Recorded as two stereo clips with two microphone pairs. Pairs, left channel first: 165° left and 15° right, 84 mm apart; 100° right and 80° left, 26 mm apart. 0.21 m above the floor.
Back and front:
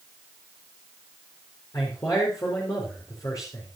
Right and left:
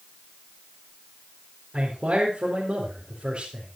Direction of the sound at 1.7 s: 125° left.